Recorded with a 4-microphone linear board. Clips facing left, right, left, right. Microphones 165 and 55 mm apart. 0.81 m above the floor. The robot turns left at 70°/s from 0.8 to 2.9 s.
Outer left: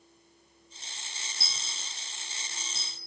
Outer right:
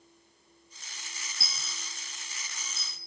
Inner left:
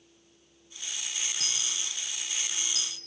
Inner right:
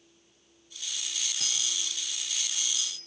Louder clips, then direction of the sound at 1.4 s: Outer right 2 dB, inner right 1 dB; 5° right (ahead or behind).